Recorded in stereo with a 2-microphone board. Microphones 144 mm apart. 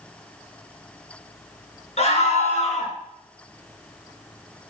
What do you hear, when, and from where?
2.0 s a scream: 50° left (ahead or behind), 2.5 m